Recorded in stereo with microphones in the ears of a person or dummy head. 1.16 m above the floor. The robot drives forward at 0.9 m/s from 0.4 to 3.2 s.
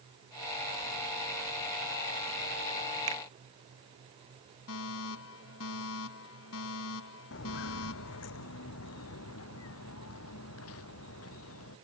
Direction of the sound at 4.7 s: 75° left (ahead or behind).